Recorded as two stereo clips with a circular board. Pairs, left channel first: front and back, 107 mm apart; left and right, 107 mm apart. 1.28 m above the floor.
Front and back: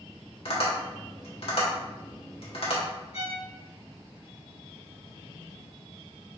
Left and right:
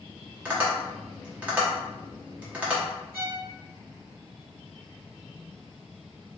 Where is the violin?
20° right, 1.5 m.